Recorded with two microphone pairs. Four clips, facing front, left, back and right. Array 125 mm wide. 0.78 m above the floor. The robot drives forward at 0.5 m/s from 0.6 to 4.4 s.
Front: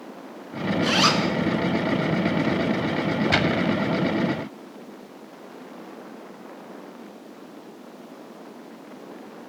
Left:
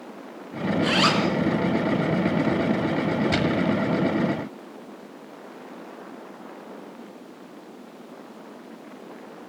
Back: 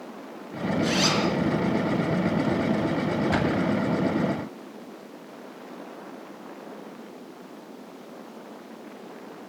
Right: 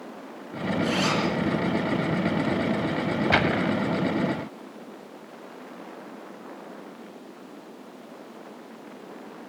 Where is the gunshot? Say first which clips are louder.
Even, front 2 dB; 75° right, 1.0 m; by 3.8 s 90° right, 1.0 m.